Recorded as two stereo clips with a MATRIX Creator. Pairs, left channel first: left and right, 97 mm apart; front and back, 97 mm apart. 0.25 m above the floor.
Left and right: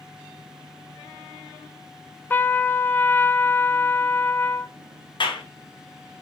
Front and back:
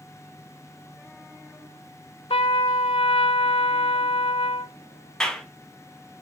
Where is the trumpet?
20° left, 0.5 m.